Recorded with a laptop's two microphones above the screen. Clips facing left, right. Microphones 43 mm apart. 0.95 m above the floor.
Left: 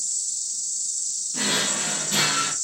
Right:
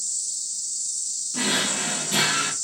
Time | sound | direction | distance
0.0 | an insect | 50° left (ahead or behind) | 2 m
1.3 | a drawer | 10° right (ahead or behind) | 0.6 m